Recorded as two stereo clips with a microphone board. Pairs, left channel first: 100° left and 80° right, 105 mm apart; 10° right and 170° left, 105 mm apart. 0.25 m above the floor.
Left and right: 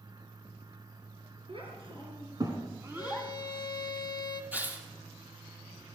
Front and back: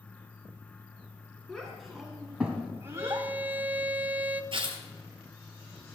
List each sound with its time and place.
1.5 s a child speaking: 95° right, 3 m; by 3.3 s 165° right, 1.3 m
3.0 s a violin: 105° left, 0.9 m
4.5 s tearing paper: 155° right, 2.5 m